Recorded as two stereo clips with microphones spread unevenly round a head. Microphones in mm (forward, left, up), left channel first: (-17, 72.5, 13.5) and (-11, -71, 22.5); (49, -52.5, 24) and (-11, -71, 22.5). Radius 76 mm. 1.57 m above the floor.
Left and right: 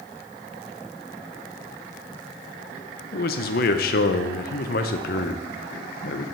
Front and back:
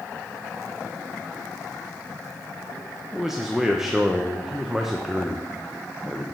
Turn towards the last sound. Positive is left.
turn(degrees=110)